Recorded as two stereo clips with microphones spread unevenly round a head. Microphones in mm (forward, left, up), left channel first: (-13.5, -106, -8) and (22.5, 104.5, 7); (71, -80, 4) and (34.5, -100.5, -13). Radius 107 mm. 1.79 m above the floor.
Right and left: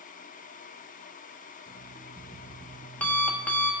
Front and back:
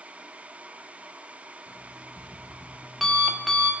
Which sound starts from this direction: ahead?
An alarm clock, at 1.7 s.